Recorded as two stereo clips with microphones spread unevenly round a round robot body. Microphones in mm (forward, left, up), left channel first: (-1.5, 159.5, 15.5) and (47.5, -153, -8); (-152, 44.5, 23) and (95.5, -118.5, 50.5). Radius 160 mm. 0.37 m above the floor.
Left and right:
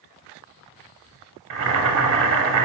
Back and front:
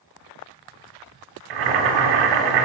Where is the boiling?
30° right, 0.5 m.